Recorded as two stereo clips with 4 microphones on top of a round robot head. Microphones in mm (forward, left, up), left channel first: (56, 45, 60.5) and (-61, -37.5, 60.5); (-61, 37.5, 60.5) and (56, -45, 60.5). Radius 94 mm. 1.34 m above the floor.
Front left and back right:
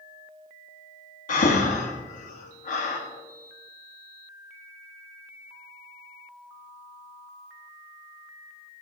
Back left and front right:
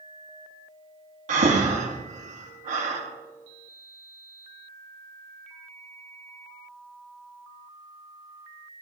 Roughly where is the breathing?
Ahead.